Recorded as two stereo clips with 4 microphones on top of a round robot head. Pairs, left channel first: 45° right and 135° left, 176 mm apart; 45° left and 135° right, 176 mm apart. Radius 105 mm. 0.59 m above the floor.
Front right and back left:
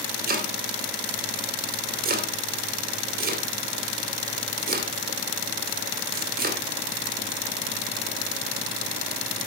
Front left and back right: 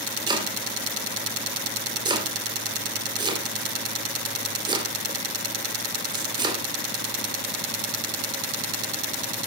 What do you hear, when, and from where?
0.3 s chopping: 165° left, 3 m